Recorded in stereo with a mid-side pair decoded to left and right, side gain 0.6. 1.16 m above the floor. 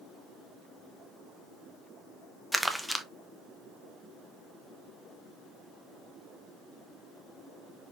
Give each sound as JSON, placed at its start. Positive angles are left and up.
{"t": 2.5, "sound": "crumpling", "azimuth_deg": 0, "distance_m": 0.6}